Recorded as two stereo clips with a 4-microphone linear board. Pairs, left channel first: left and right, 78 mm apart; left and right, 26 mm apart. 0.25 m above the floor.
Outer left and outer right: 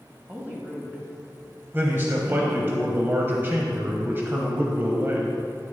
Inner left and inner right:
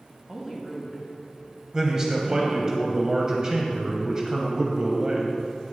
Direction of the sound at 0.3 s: 20° right (ahead or behind).